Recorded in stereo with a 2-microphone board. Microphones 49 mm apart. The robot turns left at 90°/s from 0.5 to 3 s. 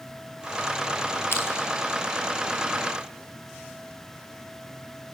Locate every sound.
1.3 s crushing: 55° left (ahead or behind), 5 m; by 1.5 s 70° left (ahead or behind), 5 m